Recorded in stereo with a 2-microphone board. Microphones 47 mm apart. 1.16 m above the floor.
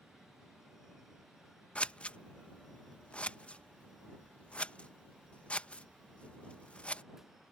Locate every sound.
1.8 s scissors: 30° left (ahead or behind)